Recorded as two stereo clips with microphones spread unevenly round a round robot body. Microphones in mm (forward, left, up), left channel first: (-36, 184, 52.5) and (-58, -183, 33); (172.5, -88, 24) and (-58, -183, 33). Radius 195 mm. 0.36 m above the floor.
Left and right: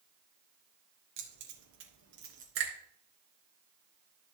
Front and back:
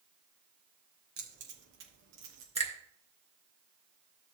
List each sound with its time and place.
1.2 s keys jangling: 130° right, 4 m; by 2.5 s 165° right, 3.5 m
2.5 s a finger snap: 90° right, 3.5 m